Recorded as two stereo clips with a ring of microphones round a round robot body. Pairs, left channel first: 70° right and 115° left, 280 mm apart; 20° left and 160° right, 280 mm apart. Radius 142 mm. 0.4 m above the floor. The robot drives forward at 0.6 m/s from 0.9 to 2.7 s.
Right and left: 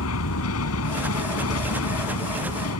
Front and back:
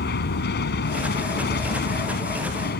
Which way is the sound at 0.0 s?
30° right.